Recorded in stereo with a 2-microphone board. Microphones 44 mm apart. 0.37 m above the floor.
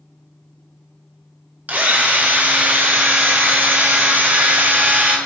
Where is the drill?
40° right (ahead or behind), 1.8 m.